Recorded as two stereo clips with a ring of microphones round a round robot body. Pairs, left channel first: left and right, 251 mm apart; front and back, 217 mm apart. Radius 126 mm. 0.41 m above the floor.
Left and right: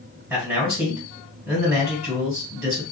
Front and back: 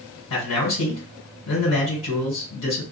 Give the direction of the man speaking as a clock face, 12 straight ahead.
12 o'clock.